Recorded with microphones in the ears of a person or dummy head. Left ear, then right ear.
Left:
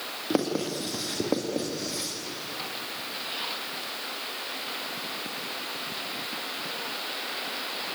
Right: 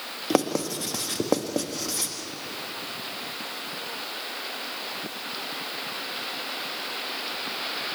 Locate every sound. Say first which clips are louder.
0.3 s writing: right 3 dB; 35° right (ahead or behind), 1.8 m